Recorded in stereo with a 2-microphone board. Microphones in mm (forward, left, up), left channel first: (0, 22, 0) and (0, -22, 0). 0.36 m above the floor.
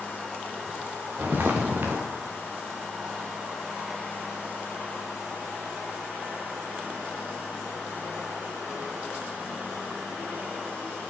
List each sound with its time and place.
1.2 s footsteps: 45° right (ahead or behind), 3 m